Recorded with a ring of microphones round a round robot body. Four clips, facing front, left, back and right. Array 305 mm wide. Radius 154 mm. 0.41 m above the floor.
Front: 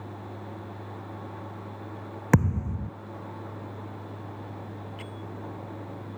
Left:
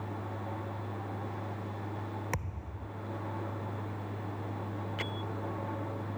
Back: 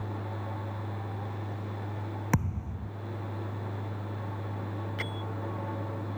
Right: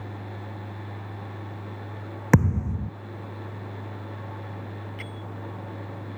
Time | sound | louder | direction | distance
2.3 | a thud | right 17 dB, front 9 dB | 65° right | ?
5.0 | a bell | left 1 dB, back 3 dB | 140° left | ?